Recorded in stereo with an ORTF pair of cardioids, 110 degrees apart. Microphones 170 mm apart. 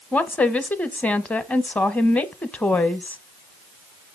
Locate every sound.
0.1 s a woman speaking: 10° left, 0.9 m